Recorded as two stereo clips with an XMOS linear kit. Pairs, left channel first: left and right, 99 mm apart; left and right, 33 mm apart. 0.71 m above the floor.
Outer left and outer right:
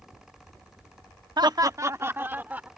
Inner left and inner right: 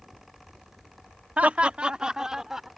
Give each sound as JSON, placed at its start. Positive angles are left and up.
{"t": 1.4, "sound": "laughter", "side_deg": -50}